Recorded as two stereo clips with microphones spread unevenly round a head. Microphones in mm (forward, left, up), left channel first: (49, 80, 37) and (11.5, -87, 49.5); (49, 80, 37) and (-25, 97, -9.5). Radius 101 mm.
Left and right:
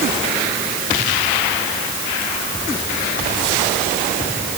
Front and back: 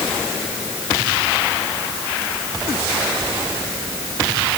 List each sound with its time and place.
Only background noise.